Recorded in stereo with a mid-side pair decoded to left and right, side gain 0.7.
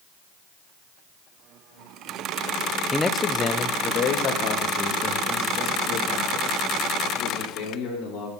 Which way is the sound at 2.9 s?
10° left.